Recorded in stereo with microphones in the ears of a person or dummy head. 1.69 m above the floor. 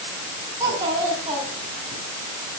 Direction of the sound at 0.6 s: 20° right (ahead or behind).